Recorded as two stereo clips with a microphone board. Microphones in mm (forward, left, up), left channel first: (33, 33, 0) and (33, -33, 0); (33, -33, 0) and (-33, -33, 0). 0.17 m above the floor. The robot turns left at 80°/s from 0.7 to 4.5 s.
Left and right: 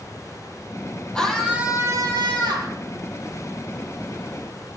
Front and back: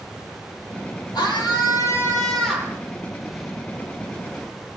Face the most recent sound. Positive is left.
turn(degrees=105)